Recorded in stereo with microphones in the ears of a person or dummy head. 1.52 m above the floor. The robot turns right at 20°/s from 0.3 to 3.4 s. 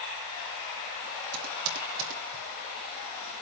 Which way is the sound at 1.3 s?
80° right.